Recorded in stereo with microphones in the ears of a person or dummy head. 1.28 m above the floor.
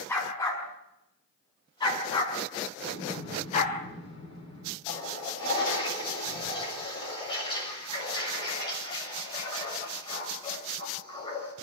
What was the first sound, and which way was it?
A dog barking, 15° left (ahead or behind).